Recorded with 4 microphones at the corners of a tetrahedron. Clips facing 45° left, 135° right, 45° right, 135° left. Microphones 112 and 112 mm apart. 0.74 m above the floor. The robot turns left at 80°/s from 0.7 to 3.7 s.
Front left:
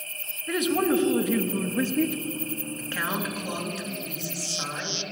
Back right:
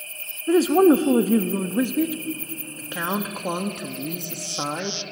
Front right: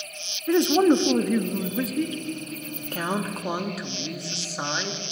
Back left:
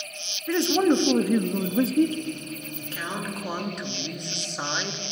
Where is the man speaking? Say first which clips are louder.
Back right 9 dB, front right 3 dB; 105° right, 0.5 m; by 2.1 s 140° left, 0.5 m.